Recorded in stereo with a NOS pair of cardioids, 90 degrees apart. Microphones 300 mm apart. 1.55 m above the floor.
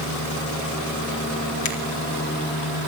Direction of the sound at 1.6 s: 65° left.